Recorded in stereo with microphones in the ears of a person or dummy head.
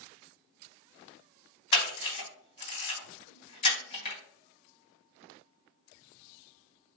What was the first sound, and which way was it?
A camera shutter, 30° left (ahead or behind).